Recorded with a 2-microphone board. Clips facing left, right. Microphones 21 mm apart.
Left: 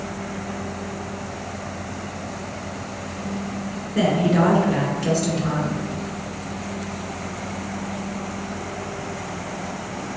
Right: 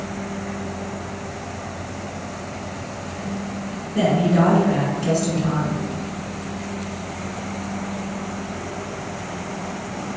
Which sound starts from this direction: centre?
A woman speaking, at 4.0 s.